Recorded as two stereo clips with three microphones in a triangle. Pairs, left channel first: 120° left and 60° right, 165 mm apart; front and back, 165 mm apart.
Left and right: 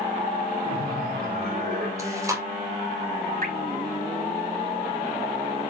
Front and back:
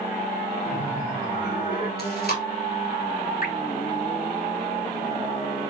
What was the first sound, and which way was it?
Laughter, 35° right.